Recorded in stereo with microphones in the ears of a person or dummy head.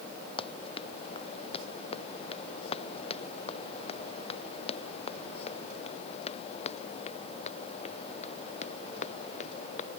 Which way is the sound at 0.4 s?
30° left (ahead or behind).